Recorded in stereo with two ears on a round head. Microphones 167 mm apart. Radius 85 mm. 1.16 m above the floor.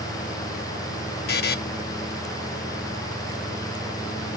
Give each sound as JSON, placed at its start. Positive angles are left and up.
{"t": 1.3, "sound": "a buzzer", "side_deg": 55, "distance_m": 0.8}